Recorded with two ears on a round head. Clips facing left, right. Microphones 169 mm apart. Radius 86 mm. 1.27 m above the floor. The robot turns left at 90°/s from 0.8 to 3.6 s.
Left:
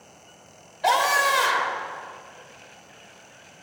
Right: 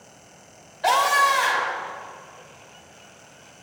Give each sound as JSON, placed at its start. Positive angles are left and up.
{"t": 0.8, "sound": "a scream", "azimuth_deg": 180, "distance_m": 5.5}